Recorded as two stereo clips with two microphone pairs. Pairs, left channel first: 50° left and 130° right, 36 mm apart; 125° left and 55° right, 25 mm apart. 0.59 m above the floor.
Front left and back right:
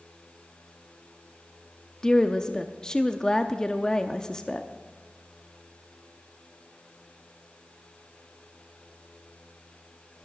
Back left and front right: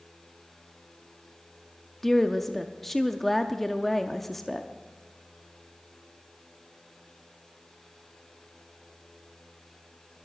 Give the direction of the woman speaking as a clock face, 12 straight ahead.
10 o'clock.